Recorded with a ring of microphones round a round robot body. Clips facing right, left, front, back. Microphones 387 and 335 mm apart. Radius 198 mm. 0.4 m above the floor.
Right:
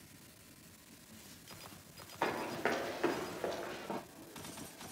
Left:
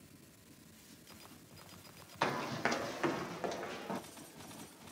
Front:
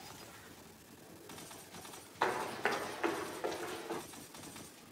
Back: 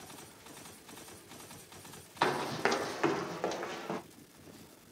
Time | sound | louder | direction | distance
2.2 | running footsteps | right 1 dB, back 4 dB | 140° left | 1.0 m